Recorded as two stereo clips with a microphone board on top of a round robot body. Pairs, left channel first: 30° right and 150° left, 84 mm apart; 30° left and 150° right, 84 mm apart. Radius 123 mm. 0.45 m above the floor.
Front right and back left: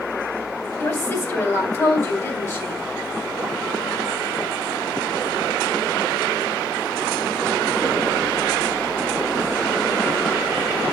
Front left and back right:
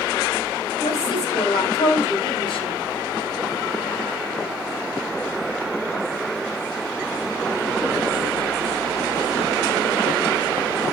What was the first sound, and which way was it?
A woman speaking, 30° left.